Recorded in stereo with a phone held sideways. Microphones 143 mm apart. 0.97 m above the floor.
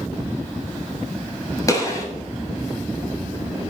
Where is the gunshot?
25° left (ahead or behind), 5.5 m.